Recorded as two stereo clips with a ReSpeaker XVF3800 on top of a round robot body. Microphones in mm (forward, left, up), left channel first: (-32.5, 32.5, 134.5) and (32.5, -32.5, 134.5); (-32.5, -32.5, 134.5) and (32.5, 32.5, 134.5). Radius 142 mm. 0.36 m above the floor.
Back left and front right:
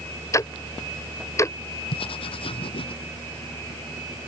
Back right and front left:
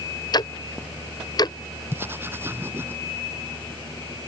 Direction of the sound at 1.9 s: 110° left.